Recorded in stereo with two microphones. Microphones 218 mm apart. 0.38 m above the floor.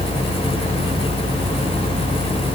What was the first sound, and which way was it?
Only background noise.